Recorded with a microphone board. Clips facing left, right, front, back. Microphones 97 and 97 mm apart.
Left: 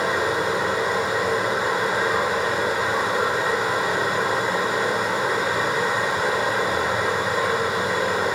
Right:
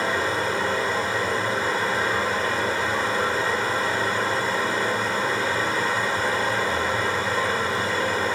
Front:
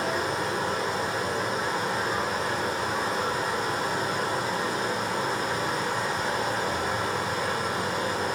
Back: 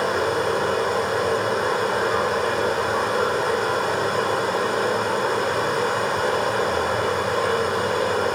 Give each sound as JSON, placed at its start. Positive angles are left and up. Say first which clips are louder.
{"t": 0.0, "sound": "running water", "louder": "left 2 dB, back 6 dB", "azimuth_deg": 165, "distance_m": 3.0}